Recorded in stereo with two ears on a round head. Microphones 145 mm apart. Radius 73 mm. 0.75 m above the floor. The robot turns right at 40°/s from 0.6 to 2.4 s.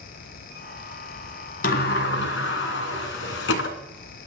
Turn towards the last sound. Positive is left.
turn(degrees=85)